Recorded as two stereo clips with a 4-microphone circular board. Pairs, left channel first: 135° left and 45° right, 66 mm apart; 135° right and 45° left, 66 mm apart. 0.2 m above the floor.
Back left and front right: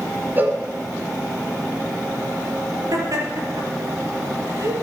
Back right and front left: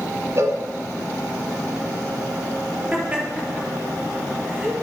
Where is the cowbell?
10° left, 1.8 m.